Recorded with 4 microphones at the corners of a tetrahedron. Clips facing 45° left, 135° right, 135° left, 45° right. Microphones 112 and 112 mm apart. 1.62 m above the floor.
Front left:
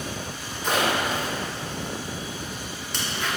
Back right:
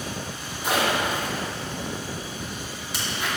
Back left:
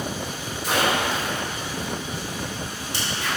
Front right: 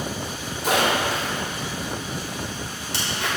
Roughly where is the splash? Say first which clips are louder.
Even, front right 1 dB; ahead right.